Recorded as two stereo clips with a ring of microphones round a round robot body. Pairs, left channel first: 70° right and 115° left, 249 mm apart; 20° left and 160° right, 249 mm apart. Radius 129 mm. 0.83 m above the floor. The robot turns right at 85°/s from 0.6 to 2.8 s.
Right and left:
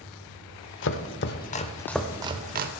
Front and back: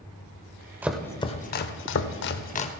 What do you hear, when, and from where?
0.8 s chopping: 80° right, 0.6 m; by 2.7 s 80° left, 0.6 m